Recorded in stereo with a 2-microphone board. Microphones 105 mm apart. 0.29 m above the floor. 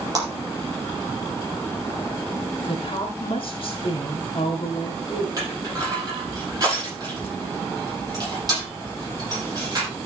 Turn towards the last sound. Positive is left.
turn(degrees=-35)  # may be behind; listen again after turning